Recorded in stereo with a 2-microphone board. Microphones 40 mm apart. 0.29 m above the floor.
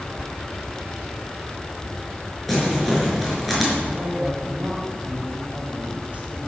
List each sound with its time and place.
2.5 s crumpling: centre (ahead or behind), 5 m
3.9 s a woman speaking: 35° right (ahead or behind), 2 m